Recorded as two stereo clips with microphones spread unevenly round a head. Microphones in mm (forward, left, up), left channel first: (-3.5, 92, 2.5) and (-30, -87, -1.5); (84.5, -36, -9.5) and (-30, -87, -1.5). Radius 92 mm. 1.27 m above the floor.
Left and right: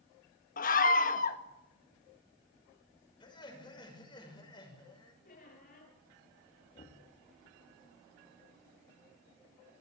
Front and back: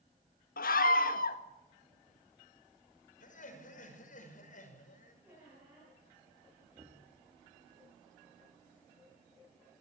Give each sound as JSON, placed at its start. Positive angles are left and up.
{"t": 0.6, "sound": "a scream", "azimuth_deg": 30, "distance_m": 1.8}
{"t": 3.2, "sound": "laughter", "azimuth_deg": 15, "distance_m": 6.0}
{"t": 5.2, "sound": "a squeak", "azimuth_deg": 125, "distance_m": 9.0}
{"t": 6.8, "sound": "knocking", "azimuth_deg": 135, "distance_m": 2.0}